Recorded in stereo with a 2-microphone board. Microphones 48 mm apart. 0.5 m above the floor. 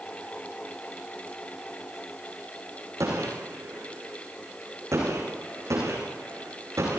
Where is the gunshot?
85° right, 8.5 m.